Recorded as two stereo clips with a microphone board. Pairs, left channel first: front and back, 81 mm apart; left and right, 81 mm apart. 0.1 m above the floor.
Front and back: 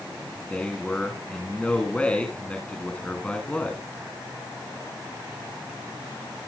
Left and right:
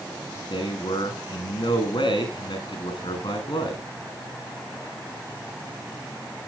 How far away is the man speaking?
About 9 m.